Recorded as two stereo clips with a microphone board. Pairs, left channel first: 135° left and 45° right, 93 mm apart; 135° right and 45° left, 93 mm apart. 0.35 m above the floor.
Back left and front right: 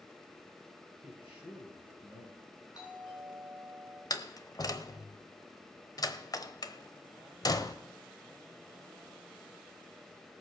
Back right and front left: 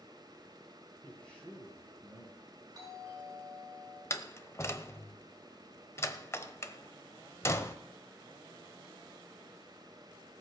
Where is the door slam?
170° left, 0.9 m.